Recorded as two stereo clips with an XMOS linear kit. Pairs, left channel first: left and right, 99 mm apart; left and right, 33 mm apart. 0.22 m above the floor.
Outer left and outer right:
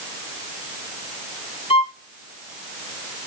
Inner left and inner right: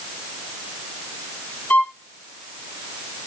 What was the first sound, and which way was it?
A violin, 70° left (ahead or behind).